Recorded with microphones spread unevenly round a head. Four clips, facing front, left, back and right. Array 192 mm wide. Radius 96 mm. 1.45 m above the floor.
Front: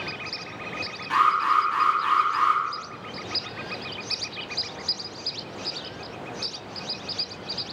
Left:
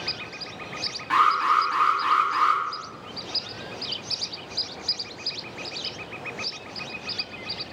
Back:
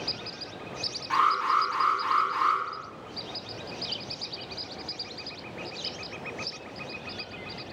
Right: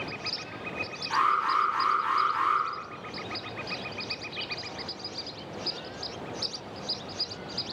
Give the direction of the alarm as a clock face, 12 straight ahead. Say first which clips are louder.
Left 5 dB, front 3 dB; 10 o'clock.